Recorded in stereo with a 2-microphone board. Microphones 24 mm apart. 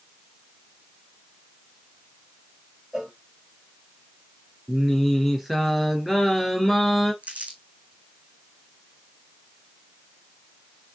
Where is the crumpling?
85° right, 1.8 m.